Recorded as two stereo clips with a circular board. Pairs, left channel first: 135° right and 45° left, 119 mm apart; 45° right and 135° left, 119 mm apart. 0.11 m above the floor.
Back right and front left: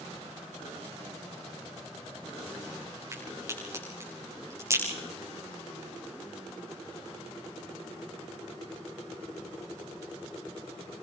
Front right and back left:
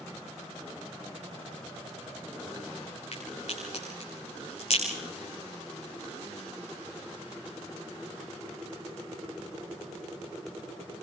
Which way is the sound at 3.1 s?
20° right.